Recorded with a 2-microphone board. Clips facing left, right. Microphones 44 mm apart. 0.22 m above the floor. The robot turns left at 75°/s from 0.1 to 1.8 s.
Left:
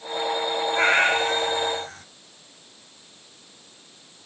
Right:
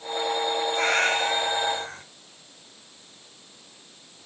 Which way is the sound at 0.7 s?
40° left.